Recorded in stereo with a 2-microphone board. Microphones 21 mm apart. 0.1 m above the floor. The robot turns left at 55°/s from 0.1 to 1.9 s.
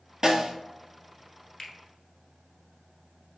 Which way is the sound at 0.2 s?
25° right (ahead or behind).